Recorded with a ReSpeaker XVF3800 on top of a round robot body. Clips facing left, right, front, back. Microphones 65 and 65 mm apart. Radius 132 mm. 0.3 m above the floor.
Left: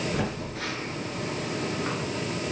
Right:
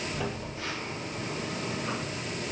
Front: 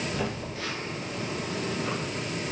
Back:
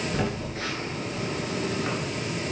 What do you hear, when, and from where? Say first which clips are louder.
0.1 s a phone buzzing: left 4 dB, back 3 dB; 125° left, 1.8 m